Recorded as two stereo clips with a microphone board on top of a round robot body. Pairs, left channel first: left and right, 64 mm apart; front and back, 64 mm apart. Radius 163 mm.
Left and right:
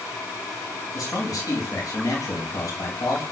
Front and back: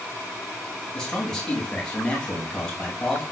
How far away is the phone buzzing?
I don't hear a phone buzzing.